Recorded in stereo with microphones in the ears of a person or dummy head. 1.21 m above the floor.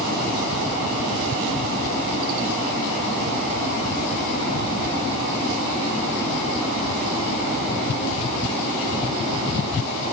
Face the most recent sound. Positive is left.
No sound to turn to.